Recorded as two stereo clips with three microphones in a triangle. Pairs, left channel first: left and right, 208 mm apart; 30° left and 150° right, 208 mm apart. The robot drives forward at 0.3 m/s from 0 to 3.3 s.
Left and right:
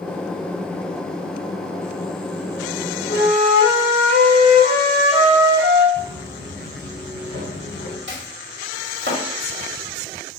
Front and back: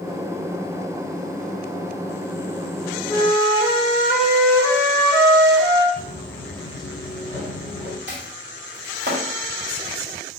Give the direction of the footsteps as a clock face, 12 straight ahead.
1 o'clock.